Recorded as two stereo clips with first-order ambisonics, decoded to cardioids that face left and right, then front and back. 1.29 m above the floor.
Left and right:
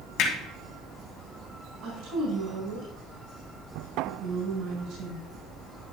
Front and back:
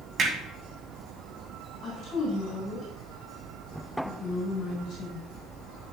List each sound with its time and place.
0.2 s hammering: 120° left, 2.0 m
1.8 s a woman speaking: 55° right, 4 m